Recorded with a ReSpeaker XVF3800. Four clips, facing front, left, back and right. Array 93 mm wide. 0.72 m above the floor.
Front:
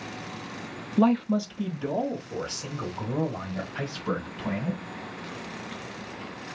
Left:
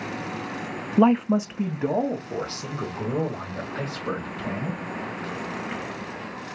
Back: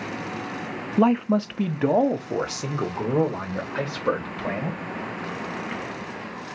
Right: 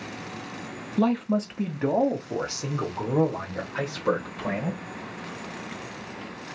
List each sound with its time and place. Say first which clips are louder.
1.0 s a man speaking: left 5 dB, back 3 dB; 115° left, 0.5 m; by 4.8 s 165° right, 3 m